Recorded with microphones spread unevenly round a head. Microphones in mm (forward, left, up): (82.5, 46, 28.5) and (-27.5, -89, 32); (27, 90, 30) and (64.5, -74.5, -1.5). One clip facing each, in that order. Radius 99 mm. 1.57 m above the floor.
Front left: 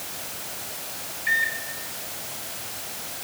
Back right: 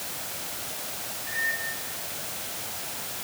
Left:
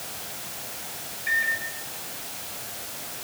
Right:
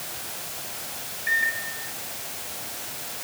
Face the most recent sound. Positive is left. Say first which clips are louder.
# front left 5 dB, right 1 dB
turn(degrees=70)